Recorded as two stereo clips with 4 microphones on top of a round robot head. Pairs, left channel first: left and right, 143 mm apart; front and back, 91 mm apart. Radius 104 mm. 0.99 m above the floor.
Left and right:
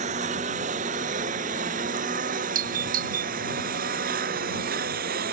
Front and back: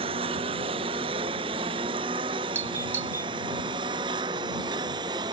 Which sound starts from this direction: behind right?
A lawn mower, at 0.0 s.